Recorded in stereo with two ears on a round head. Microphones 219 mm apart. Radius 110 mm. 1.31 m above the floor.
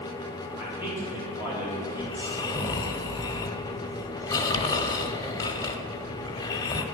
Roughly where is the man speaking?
Centre.